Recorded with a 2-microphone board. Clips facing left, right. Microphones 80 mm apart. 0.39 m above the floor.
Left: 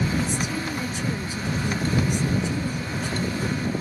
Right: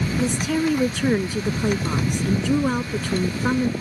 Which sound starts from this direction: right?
A woman speaking, at 0.2 s.